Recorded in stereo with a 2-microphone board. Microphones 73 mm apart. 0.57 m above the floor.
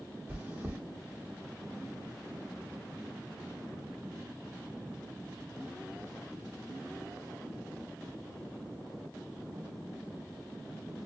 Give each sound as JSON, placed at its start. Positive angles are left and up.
{"t": 0.3, "sound": "chewing", "side_deg": -30, "distance_m": 1.2}